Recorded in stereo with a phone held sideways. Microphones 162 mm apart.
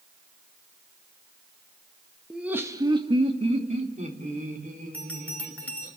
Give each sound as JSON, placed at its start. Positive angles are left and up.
{"t": 2.3, "sound": "laughter", "side_deg": 0, "distance_m": 1.4}
{"t": 4.9, "sound": "a bell", "side_deg": 10, "distance_m": 2.0}